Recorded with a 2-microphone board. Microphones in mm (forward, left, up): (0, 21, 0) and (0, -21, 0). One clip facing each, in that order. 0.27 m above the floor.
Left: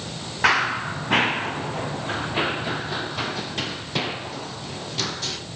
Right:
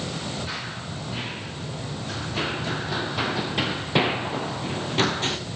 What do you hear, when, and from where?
0.4 s running footsteps: 80° left, 2.5 m; by 5.4 s 35° right (ahead or behind), 3.5 m